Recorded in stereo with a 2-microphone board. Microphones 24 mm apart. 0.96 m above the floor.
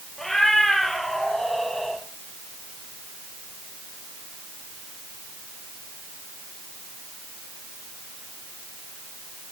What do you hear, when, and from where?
0.2 s a cat meowing: 20° left (ahead or behind), 6.5 m; by 2.0 s 10° left (ahead or behind), 7.5 m